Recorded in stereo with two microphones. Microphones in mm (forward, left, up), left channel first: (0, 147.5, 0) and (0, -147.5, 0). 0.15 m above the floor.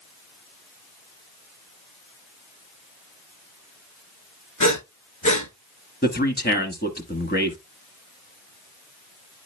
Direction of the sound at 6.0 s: 35° left (ahead or behind).